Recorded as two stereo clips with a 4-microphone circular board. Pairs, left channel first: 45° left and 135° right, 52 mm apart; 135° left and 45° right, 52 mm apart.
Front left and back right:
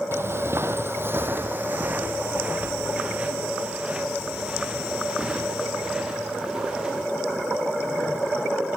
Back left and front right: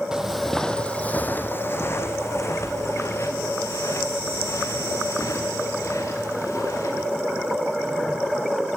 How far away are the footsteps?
About 1.4 m.